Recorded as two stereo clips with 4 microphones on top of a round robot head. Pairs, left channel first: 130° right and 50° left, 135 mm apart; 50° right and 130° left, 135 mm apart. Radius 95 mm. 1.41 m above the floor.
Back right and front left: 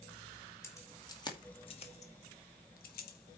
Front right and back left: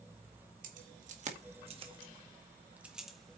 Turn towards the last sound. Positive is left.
turn(degrees=-130)